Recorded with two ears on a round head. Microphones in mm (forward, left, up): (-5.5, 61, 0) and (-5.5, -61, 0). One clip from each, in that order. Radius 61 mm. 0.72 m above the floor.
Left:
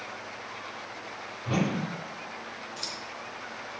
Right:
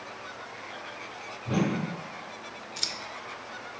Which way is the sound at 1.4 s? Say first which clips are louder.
Even; 45° left (ahead or behind).